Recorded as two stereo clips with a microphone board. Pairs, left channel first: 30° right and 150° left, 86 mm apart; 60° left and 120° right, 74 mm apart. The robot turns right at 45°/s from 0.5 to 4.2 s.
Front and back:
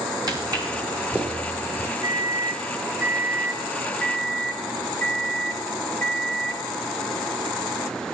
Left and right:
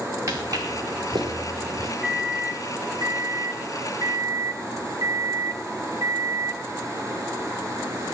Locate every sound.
0.3 s footsteps: 170° right, 4 m; by 1.9 s 90° right, 5 m
2.0 s a microwave: 165° left, 0.9 m; by 6.6 s 95° right, 0.9 m